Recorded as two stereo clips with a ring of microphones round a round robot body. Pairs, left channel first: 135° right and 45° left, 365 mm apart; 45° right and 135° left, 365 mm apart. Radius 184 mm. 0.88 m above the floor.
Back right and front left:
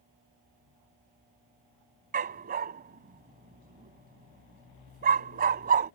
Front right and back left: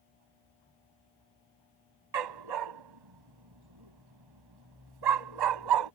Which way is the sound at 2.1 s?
110° left.